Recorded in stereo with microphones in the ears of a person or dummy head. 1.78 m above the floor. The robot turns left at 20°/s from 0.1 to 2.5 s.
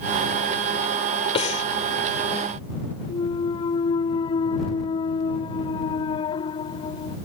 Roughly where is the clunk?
Left.